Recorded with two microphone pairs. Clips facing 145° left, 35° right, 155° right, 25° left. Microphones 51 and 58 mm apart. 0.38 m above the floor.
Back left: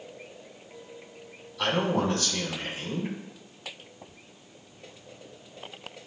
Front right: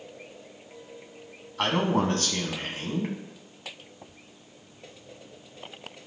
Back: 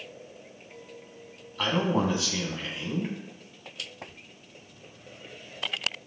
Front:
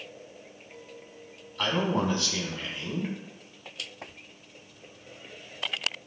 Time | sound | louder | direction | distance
1.6 | a man speaking | front right 1 dB, back 1 dB | 70° right | 2.5 m